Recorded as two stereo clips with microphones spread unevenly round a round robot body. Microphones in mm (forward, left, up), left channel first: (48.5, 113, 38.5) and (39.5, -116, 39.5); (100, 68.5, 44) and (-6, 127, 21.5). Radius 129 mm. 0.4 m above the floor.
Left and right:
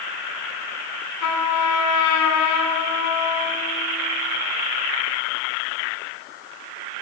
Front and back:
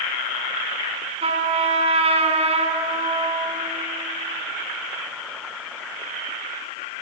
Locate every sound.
1.2 s a trumpet: 110° left, 1.7 m